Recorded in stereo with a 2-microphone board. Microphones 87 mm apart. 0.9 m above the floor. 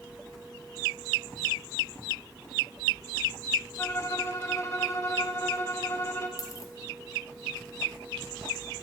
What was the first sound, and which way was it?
A violin, 30° left (ahead or behind).